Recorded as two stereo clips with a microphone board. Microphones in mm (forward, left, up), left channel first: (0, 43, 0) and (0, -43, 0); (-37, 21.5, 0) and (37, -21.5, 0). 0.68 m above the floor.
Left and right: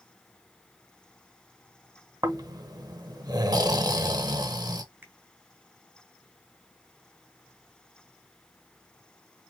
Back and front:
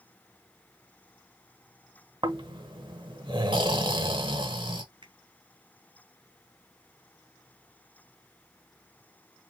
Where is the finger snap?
25° right, 2.5 m.